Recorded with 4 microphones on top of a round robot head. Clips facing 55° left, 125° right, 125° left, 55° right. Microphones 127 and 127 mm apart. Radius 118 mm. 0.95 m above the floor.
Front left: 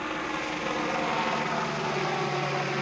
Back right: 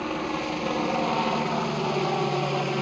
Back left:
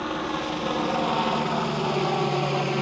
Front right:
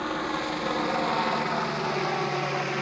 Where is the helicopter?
155° right; by 2.8 s straight behind.